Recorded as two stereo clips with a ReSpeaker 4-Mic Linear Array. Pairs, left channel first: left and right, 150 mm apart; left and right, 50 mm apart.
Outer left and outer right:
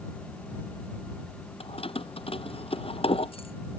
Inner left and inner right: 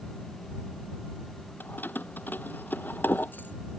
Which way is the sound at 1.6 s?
40° left (ahead or behind).